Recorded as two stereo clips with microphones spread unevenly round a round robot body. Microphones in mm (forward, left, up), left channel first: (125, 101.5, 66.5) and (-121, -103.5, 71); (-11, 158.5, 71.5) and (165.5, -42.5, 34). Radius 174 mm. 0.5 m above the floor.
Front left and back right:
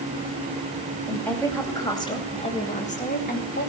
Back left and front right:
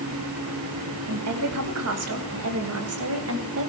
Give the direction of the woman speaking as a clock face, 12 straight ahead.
2 o'clock.